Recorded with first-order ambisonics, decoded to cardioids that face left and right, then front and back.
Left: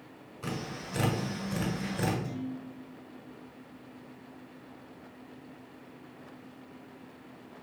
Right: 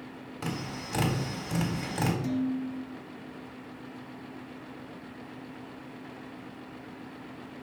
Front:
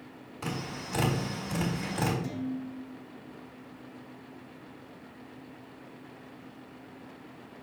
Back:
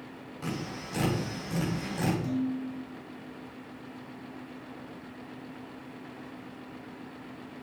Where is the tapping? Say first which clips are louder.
Right 1 dB, front 1 dB; 75° right, 3.5 m.